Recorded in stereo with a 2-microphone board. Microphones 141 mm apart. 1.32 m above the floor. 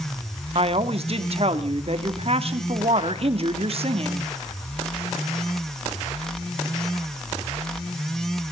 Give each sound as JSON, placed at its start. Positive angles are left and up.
{"t": 0.6, "sound": "a woman speaking", "side_deg": -50, "distance_m": 2.5}